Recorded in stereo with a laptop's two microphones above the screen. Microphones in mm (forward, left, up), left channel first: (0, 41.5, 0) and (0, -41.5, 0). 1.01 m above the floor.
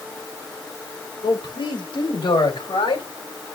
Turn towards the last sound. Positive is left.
turn(degrees=85)